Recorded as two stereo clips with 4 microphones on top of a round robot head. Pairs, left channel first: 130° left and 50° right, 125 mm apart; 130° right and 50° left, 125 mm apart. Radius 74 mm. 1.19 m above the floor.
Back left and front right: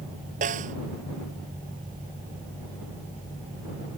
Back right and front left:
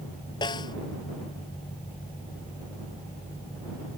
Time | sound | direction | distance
0.4 | a snare drum | 75° right | ?